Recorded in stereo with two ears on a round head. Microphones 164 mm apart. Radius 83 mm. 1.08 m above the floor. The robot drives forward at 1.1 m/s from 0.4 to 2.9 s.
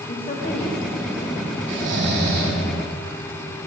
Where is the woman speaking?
35° left (ahead or behind), 0.7 m; by 1.6 s 10° left (ahead or behind), 1.9 m.